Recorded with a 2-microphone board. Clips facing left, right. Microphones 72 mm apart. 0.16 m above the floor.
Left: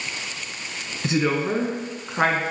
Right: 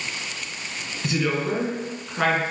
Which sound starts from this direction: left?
A woman speaking, at 1.0 s.